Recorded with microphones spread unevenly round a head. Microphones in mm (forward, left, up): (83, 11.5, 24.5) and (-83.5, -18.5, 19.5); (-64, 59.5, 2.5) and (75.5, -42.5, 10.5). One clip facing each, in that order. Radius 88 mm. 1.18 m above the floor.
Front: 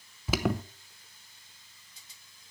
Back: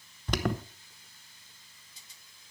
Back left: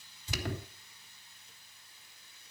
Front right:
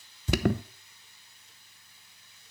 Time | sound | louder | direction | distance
0.3 | an alarm | front 2 dB, front right 12 dB | 75° right | 0.9 m